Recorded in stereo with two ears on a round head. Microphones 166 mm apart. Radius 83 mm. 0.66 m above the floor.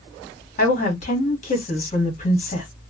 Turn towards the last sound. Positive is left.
turn(degrees=40)  # may be behind; listen again after turning